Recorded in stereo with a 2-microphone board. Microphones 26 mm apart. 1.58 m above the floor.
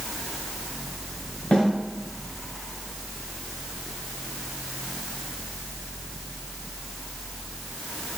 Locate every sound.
1.5 s a snare drum: 50° left (ahead or behind), 3 m